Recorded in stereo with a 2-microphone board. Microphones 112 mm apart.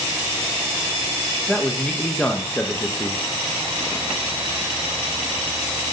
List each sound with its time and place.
1.5 s a man speaking: 10° left (ahead or behind), 0.9 m